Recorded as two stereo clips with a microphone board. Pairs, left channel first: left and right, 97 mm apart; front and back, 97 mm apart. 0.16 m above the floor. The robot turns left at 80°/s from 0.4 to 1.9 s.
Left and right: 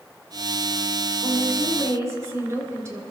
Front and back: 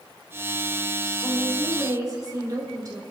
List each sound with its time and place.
1.2 s a woman speaking: 85° right, 3 m; by 3.0 s 140° right, 3 m